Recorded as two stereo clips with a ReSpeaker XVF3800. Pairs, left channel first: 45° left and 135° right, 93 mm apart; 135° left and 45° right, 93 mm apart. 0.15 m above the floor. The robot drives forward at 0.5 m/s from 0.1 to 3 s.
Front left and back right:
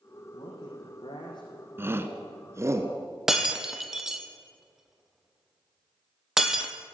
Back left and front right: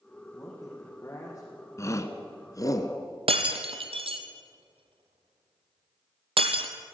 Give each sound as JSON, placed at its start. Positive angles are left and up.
{"t": 0.3, "sound": "a man speaking", "azimuth_deg": 65, "distance_m": 6.0}
{"t": 1.8, "sound": "a shout", "azimuth_deg": 175, "distance_m": 1.6}
{"t": 3.3, "sound": "breaking glass", "azimuth_deg": -50, "distance_m": 1.4}